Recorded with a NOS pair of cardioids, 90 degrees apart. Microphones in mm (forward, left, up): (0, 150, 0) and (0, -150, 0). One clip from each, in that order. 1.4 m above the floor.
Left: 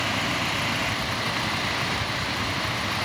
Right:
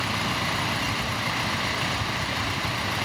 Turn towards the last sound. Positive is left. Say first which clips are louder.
# left 1 dB
turn(degrees=-20)